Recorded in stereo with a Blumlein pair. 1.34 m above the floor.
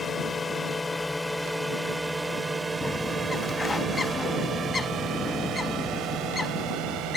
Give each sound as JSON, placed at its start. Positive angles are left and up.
{"t": 0.0, "sound": "a drone", "azimuth_deg": 15}
{"t": 2.8, "sound": "a bird", "azimuth_deg": 15}